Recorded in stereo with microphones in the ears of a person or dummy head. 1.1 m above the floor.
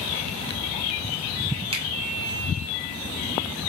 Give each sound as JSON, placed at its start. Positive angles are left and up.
{"t": 1.7, "sound": "a finger snap", "side_deg": -30, "distance_m": 0.7}